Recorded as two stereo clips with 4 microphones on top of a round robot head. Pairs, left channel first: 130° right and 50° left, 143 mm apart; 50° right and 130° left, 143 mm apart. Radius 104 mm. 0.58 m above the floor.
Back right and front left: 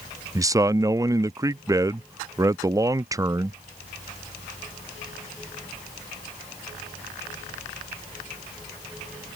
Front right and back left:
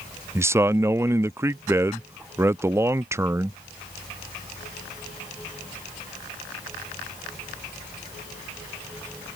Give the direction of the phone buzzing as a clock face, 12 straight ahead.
No phone buzzing in this recording.